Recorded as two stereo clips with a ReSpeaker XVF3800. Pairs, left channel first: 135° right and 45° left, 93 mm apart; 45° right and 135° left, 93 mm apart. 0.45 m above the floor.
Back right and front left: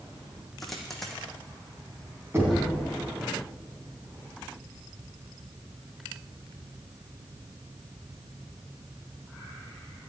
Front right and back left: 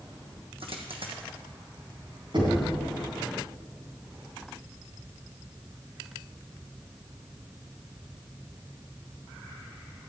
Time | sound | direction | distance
0.6 | a dropped coin | 140° left | 1.9 m
2.3 | knocking | 110° left | 3 m